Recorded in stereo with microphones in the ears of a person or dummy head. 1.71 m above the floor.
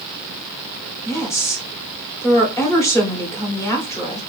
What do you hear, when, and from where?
1.1 s a woman speaking: 20° left (ahead or behind), 1.1 m